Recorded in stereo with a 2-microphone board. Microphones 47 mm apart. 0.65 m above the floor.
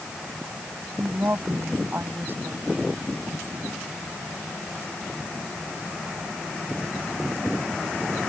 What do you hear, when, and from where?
1.0 s a woman speaking: 45° right (ahead or behind)